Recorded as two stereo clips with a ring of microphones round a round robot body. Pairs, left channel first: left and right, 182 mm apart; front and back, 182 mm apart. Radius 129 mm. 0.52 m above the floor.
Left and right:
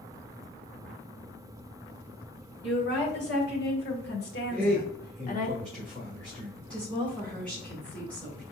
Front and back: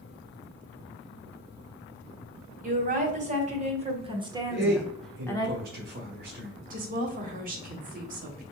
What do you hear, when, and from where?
2.6 s a woman speaking: 140° left, 2.5 m; by 5.5 s 60° left, 1.0 m
4.5 s a man speaking: 175° left, 1.0 m
6.7 s a woman speaking: 175° left, 1.4 m